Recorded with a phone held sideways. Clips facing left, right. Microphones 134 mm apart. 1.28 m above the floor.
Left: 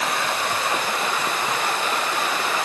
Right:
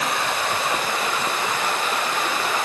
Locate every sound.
Only background noise.